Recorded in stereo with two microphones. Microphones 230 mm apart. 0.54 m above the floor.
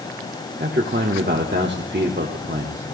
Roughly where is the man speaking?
Right.